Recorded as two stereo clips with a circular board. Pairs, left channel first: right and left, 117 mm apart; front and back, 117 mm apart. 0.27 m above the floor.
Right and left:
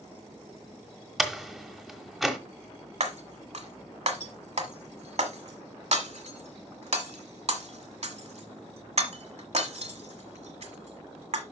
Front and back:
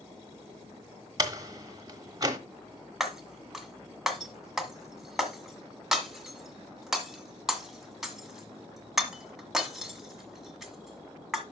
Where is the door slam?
Straight behind, 1.2 m.